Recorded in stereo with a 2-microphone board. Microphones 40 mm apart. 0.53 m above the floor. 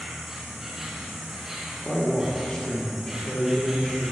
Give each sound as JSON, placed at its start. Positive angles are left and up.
{"t": 0.0, "sound": "an insect", "side_deg": -15, "distance_m": 2.0}
{"t": 1.9, "sound": "a man speaking", "side_deg": 25, "distance_m": 1.1}